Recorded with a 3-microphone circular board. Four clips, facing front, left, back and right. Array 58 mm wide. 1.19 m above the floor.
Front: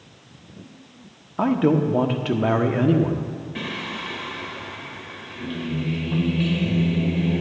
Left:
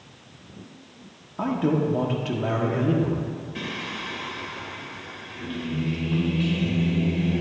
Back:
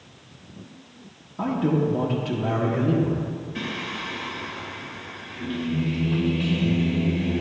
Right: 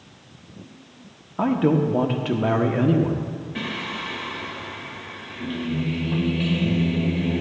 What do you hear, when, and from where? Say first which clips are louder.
1.4 s a man speaking: right 4 dB, front 4 dB; 25° right, 0.7 m
3.5 s singing: right 5 dB, front 1 dB; 50° right, 0.9 m